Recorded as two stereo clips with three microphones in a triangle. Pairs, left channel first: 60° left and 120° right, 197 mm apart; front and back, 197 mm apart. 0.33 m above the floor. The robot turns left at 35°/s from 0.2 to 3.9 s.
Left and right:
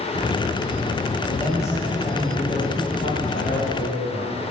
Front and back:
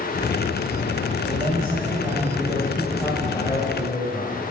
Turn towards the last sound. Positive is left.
turn(degrees=50)